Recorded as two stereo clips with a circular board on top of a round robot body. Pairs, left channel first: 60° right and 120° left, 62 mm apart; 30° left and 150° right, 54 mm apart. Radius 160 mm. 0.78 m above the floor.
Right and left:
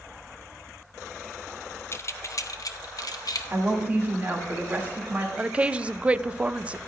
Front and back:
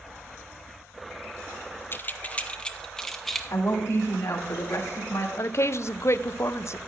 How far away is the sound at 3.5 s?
About 2.5 m.